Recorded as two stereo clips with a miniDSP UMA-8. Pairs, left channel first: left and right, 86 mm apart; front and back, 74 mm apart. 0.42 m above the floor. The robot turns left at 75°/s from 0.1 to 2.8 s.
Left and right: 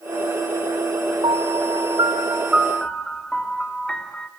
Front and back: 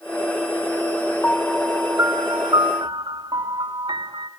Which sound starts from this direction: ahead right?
A piano, at 1.2 s.